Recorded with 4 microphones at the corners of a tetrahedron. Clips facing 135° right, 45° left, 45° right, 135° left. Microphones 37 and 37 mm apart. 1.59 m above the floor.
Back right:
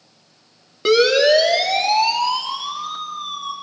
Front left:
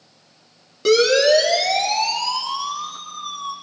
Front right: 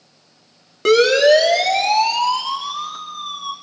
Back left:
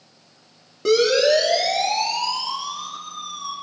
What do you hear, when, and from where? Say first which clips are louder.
0.8 s a siren: back right 1 dB, front right 5 dB; 75° right, 3.5 m; by 3.5 s 95° right, 4 m